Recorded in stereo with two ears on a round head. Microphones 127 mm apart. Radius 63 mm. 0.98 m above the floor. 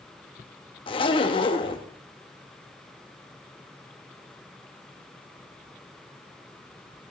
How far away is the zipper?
About 0.8 m.